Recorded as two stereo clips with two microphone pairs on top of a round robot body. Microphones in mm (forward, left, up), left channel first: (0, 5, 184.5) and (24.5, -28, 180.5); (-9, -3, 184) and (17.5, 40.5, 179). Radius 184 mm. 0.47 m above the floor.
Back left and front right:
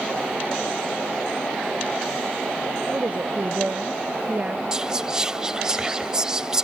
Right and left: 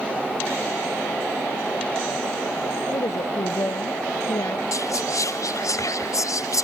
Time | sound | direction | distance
2.9 | a woman speaking | 105° right | ?
4.7 | whispering | 125° right | ?